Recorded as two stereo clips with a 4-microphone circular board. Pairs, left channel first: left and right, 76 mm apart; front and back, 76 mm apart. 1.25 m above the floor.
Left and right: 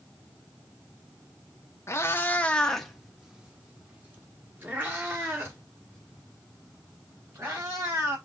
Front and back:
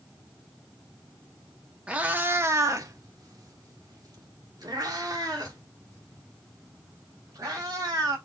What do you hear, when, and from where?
1.9 s a cat meowing: 115° left, 0.8 m; by 8.2 s 140° right, 3.5 m